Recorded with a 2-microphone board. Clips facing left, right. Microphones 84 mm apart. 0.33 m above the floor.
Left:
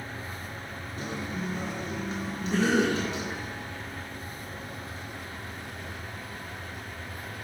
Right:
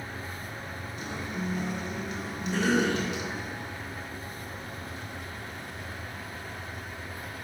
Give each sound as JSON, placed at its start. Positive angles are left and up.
{"t": 1.0, "sound": "a guitar", "side_deg": 40, "distance_m": 3.0}
{"t": 2.5, "sound": "a cough", "side_deg": 65, "distance_m": 3.0}